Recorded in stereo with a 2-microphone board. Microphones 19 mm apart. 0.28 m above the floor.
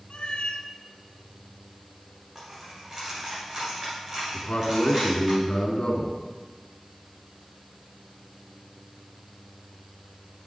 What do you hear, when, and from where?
0.1 s a cat meowing: 75° left (ahead or behind), 1.1 m
2.4 s a dropped coin: 30° right (ahead or behind), 5 m
4.3 s a man speaking: 60° left (ahead or behind), 2.5 m